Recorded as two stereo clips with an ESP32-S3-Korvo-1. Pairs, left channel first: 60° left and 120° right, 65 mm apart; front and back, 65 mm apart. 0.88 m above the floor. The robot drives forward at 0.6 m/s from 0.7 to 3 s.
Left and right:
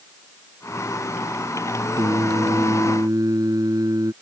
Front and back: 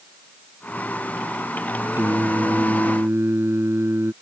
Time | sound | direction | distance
2.0 | singing | 125° right | ?